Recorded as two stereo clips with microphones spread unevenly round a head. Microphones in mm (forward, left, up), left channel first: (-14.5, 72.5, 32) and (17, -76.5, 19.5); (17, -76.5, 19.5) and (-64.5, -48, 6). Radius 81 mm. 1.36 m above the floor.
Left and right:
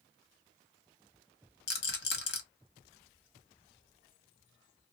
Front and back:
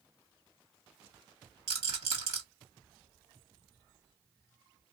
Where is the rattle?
125° left, 1.2 m.